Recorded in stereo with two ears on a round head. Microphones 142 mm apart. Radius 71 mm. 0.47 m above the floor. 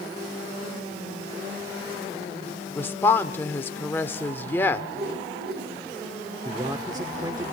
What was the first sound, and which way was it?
A woman speaking, 15° left (ahead or behind).